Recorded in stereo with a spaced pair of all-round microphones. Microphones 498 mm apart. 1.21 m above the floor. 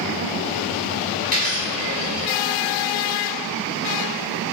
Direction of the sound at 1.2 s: 50° left (ahead or behind).